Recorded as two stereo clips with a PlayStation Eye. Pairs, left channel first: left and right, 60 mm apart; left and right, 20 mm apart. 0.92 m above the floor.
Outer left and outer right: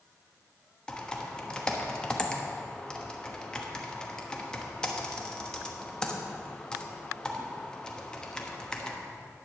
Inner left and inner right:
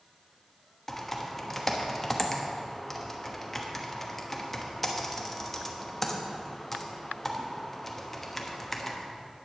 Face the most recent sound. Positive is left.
turn(degrees=15)  # may be behind; listen again after turning